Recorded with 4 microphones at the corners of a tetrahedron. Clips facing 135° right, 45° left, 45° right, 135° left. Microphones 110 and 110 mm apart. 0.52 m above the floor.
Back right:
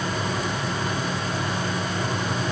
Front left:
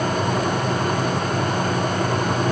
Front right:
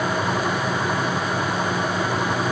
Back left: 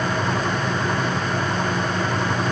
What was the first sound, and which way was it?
Only background noise.